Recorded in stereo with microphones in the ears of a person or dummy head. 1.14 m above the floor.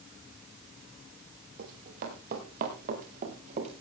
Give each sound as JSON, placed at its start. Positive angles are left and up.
{"t": 1.6, "sound": "running footsteps", "side_deg": -55, "distance_m": 7.0}